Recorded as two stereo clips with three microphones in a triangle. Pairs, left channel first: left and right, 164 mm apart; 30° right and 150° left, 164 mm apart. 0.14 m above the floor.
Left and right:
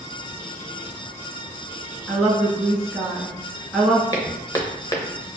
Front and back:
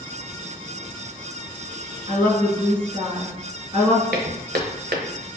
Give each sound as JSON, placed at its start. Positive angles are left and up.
{"t": 2.1, "sound": "a woman speaking", "azimuth_deg": 170, "distance_m": 1.3}
{"t": 4.1, "sound": "footsteps", "azimuth_deg": 155, "distance_m": 0.8}